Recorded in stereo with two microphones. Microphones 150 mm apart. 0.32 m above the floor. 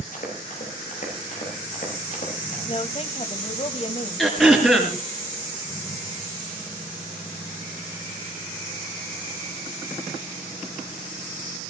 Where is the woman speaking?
45° left (ahead or behind), 1.5 m.